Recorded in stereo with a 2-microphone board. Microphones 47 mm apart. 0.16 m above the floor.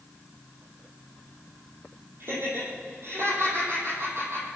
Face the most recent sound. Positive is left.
turn(degrees=-65)  # may be behind; listen again after turning